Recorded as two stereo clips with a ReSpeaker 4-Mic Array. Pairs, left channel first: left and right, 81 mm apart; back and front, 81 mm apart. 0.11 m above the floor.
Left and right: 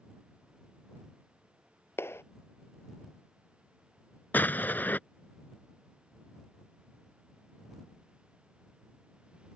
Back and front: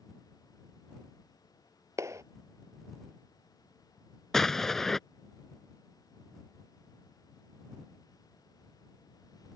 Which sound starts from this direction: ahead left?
A clap, at 2.0 s.